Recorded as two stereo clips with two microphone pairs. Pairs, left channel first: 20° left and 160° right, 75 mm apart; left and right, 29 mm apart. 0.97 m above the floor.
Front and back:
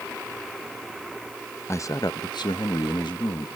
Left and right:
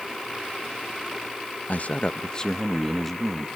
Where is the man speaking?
70° left, 0.6 m; by 3.5 s 5° left, 1.3 m.